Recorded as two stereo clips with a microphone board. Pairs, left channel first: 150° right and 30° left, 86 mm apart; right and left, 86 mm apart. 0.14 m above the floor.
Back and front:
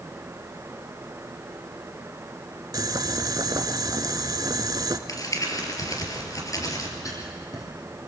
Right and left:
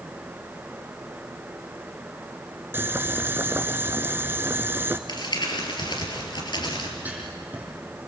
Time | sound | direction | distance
2.7 | boiling | 35° left | 0.9 m
5.1 | crumpling | 110° right | 3 m
7.0 | writing | 160° left | 6 m